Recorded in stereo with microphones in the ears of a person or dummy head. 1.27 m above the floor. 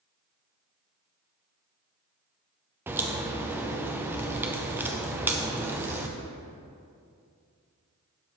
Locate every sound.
2.9 s a crack: 15° right (ahead or behind), 0.6 m